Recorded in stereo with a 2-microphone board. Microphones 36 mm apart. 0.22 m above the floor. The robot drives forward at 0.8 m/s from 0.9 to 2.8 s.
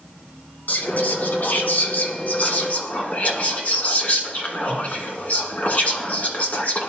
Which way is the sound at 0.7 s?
50° left (ahead or behind).